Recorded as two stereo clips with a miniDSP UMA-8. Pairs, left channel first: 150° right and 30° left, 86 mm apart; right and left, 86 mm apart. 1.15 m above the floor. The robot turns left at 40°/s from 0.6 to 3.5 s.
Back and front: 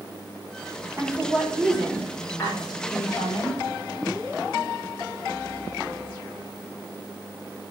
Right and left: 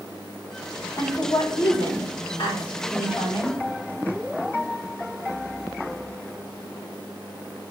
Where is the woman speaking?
30° right, 5 m; by 3.6 s 130° right, 5 m.